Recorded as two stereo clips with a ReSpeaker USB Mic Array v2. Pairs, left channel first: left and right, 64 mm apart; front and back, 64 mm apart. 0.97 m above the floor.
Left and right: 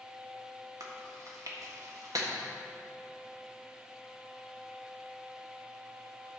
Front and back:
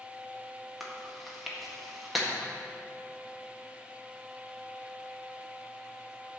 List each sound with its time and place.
0.8 s chewing: 90° right, 1.7 m